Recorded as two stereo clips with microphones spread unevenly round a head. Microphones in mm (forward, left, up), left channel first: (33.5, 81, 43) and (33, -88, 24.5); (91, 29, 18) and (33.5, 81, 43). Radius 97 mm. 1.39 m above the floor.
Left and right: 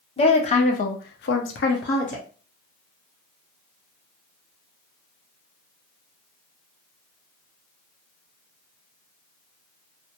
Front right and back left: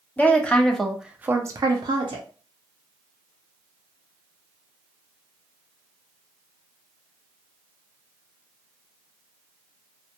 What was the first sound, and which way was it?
A woman speaking, 35° left.